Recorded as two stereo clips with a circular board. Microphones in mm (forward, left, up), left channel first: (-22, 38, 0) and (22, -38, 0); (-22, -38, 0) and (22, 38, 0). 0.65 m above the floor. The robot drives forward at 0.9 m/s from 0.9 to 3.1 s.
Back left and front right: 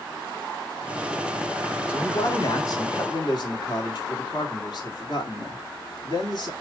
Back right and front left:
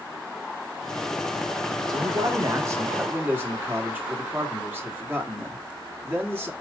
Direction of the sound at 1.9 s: 75° left.